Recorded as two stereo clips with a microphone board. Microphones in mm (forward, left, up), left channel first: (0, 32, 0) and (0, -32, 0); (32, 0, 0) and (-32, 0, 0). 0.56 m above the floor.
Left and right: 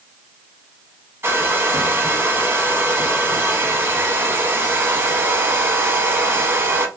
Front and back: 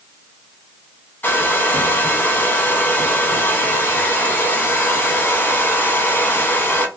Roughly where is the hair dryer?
Ahead right.